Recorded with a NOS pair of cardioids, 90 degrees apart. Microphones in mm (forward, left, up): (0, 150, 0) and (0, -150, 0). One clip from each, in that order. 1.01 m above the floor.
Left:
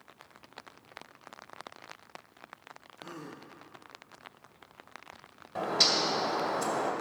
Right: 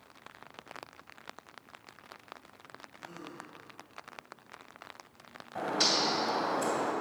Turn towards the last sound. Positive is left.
turn(degrees=30)